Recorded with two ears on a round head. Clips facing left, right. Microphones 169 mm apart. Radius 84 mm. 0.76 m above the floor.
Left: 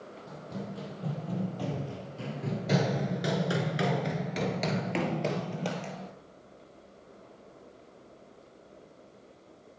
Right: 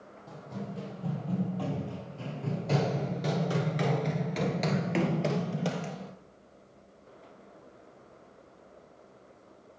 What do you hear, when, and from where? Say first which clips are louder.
0.3 s running footsteps: even; 15° left (ahead or behind), 1.9 m; by 6.1 s 10° right (ahead or behind), 1.4 m